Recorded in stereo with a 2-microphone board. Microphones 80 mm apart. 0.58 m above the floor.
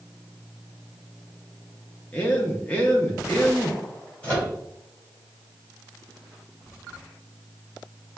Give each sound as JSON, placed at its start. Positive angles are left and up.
{"t": 2.1, "sound": "a man speaking", "side_deg": 20, "distance_m": 0.8}
{"t": 4.2, "sound": "a microwave", "side_deg": 15, "distance_m": 2.0}